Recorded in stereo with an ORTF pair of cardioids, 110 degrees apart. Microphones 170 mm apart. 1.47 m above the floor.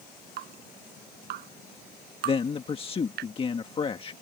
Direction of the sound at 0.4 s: 70° right.